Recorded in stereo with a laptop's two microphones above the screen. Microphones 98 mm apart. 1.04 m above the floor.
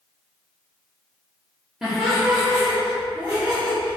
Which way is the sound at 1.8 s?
5° right (ahead or behind).